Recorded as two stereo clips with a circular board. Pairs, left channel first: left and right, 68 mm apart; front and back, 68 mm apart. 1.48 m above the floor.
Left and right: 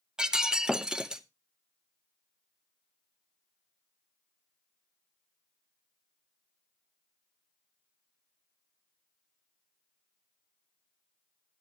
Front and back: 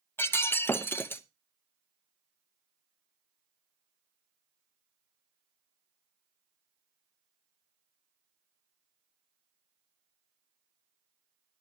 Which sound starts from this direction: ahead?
Breaking glass, at 0.2 s.